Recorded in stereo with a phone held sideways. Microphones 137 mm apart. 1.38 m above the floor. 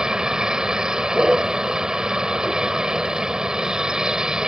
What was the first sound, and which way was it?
A vehicle, 5° right (ahead or behind).